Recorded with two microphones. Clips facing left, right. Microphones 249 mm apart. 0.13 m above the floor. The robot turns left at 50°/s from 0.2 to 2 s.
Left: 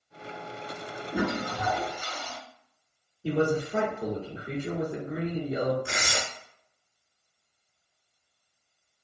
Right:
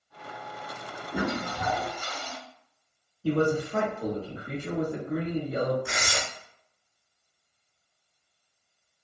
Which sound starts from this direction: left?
Tearing paper, at 5.8 s.